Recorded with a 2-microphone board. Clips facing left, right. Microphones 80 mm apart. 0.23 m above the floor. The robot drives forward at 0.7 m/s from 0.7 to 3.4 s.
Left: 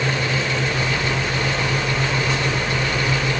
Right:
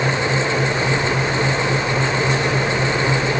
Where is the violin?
I don't hear a violin.